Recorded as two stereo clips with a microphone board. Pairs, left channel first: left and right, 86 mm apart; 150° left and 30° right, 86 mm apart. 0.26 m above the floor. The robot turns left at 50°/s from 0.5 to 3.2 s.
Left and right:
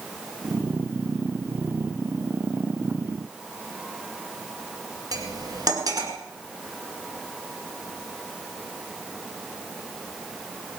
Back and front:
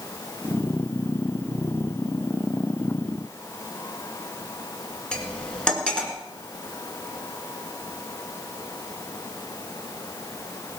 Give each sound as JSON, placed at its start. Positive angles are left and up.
{"t": 5.1, "sound": "cutlery clinking", "azimuth_deg": -130, "distance_m": 2.0}